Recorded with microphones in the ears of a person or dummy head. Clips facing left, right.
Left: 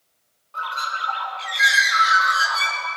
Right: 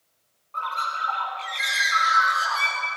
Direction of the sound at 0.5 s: 10° left (ahead or behind).